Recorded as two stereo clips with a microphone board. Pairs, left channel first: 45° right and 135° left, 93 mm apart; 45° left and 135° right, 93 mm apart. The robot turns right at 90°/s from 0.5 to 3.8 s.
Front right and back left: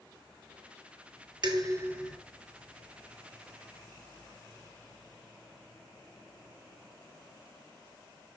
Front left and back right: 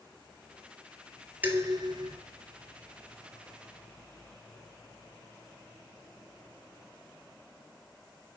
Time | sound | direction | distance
1.4 | dishes clattering | 160° left | 1.6 m